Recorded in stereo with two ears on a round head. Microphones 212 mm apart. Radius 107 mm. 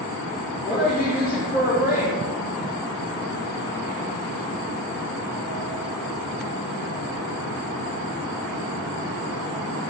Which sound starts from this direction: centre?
A woman speaking, at 0.6 s.